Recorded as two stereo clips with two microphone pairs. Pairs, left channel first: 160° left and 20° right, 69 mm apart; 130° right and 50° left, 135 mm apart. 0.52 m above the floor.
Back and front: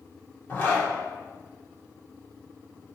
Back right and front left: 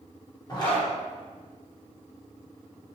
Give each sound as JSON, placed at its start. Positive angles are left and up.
{"t": 0.5, "sound": "a zipper", "azimuth_deg": -165, "distance_m": 1.0}